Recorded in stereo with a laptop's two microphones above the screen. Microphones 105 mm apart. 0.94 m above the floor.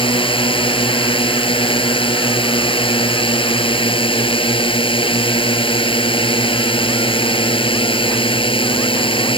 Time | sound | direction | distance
0.0 | a drone | 55° left (ahead or behind) | ?